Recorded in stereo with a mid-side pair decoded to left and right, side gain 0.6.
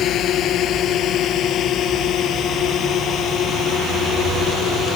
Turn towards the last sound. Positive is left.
turn(degrees=50)